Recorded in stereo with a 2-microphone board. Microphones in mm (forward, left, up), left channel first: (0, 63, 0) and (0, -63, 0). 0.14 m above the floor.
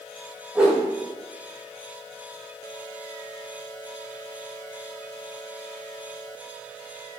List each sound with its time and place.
0.6 s a whoosh: 5° right (ahead or behind), 4 m